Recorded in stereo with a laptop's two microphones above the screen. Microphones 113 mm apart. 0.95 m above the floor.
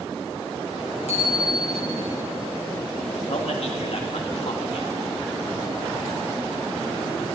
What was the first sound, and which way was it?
A bicycle bell, 80° left.